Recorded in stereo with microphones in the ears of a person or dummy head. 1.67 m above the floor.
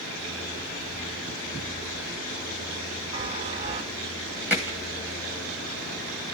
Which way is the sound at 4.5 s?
5° right (ahead or behind).